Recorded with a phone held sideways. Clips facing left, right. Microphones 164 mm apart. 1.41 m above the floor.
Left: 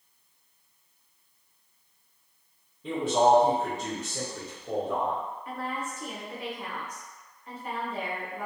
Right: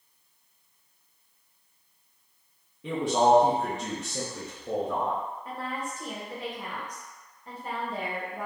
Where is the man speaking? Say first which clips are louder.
Even; 75° right (ahead or behind), 1.0 m.